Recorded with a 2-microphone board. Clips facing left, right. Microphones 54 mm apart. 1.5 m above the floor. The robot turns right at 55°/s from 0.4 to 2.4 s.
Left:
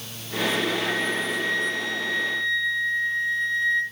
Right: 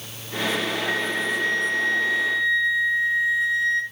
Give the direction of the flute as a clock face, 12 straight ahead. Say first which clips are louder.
Right 1 dB; 3 o'clock.